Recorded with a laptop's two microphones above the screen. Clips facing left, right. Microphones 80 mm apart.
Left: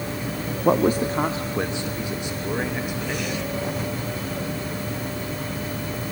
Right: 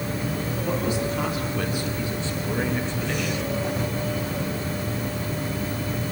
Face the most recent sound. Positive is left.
turn(degrees=5)  # may be behind; listen again after turning